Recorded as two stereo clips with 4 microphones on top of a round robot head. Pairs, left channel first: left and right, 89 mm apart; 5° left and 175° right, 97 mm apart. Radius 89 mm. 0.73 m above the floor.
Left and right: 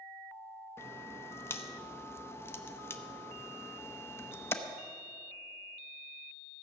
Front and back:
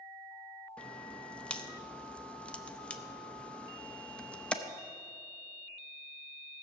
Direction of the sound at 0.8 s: 70° left.